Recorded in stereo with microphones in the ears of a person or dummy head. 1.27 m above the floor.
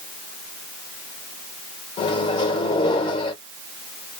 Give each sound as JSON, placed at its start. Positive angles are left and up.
{"t": 2.0, "sound": "a microwave", "side_deg": 35, "distance_m": 1.2}